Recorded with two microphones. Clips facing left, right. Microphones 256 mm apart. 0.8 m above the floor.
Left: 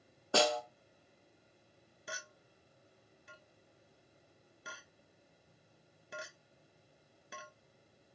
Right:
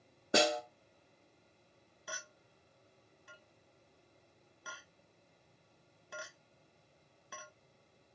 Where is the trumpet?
I don't hear a trumpet.